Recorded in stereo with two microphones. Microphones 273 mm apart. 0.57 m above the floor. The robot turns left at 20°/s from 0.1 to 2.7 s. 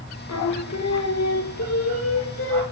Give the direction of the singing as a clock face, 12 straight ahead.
9 o'clock.